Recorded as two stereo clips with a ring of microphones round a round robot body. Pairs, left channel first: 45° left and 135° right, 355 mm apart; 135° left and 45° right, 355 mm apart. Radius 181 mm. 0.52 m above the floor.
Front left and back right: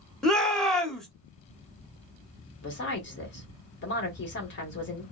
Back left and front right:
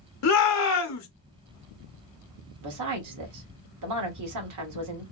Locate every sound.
0.2 s a shout: 135° left, 0.9 m
2.6 s a woman speaking: 10° right, 1.4 m